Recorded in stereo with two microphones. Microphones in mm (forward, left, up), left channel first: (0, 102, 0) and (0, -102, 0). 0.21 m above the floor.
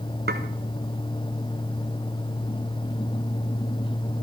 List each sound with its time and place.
0.3 s dishes clattering: 55° right (ahead or behind), 1.9 m